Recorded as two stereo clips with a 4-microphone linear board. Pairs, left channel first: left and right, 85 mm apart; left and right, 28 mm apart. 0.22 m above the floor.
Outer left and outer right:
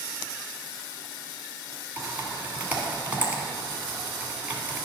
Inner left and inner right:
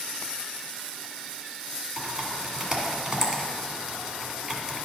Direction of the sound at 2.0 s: 20° right (ahead or behind).